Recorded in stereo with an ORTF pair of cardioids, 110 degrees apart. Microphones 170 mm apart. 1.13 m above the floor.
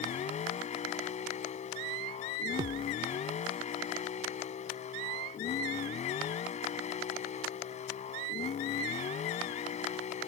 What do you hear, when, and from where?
0.0 s a vehicle: 45° left
2.6 s a thud: 30° right